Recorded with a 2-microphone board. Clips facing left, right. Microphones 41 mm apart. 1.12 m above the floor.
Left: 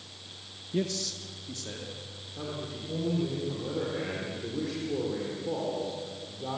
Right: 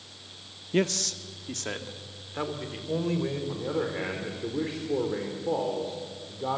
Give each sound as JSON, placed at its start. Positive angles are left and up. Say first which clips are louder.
{"t": 0.7, "sound": "a man speaking", "louder": "right 5 dB", "side_deg": -70, "distance_m": 0.9}
{"t": 3.5, "sound": "a man speaking", "louder": "right 3 dB", "side_deg": -35, "distance_m": 3.5}